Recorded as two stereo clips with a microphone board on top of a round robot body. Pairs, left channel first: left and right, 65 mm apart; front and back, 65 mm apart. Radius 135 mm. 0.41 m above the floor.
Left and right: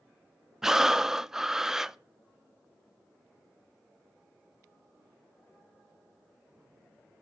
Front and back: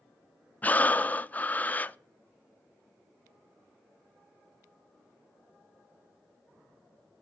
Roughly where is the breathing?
Ahead.